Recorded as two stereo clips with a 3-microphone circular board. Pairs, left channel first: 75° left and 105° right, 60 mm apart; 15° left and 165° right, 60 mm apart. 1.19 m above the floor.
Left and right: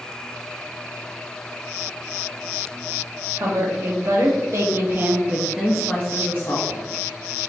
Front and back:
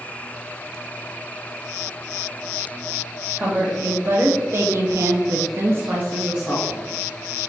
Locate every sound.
3.4 s a woman speaking: 115° right, 1.2 m; by 6.9 s 110° left, 0.8 m